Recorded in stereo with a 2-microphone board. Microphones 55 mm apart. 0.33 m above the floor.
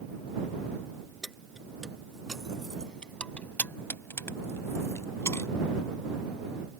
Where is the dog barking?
I don't hear a dog barking.